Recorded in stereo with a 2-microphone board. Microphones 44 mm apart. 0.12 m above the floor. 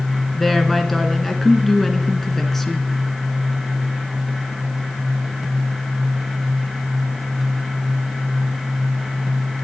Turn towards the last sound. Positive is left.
turn(degrees=5)  # may be behind; listen again after turning